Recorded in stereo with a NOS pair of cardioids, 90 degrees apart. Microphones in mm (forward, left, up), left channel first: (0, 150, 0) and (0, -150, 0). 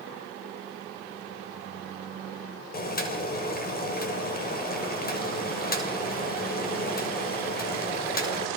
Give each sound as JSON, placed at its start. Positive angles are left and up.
{"t": 2.7, "sound": "boiling", "azimuth_deg": 30, "distance_m": 6.5}